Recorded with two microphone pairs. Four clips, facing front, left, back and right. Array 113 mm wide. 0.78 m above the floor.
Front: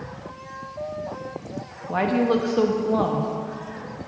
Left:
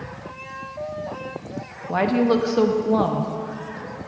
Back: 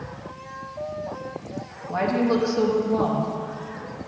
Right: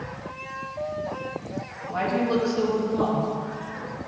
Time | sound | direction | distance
1.9 | a woman speaking | 60° left | 0.7 m